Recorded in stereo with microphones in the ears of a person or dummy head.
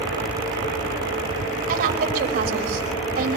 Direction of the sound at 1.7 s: 50° right (ahead or behind).